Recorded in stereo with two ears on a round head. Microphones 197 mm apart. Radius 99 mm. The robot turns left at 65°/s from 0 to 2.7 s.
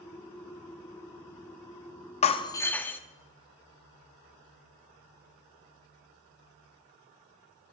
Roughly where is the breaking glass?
Ahead left.